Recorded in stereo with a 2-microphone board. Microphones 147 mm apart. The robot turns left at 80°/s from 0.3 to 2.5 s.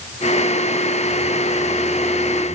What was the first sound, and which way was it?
Only background noise.